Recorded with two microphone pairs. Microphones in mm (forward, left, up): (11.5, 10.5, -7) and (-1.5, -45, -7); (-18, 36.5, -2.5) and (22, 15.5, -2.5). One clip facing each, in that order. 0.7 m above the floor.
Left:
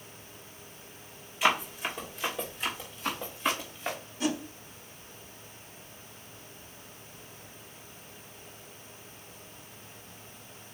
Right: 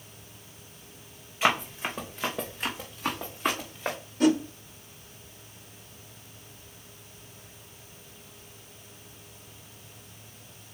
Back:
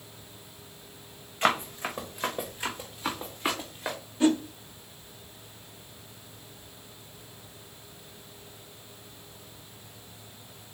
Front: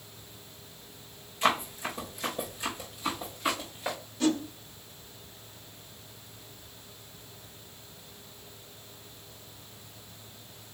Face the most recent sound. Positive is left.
turn(degrees=-140)